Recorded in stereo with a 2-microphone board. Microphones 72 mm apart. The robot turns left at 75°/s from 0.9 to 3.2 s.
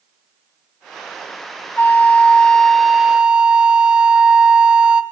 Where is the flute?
25° left (ahead or behind), 0.6 m; by 5.0 s 15° right (ahead or behind), 0.6 m.